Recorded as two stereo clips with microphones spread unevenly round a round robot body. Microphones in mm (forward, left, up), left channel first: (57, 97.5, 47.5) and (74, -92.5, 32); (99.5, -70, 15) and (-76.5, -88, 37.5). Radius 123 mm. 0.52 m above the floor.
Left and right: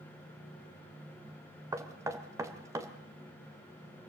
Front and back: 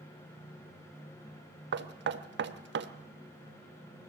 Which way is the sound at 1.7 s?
160° right.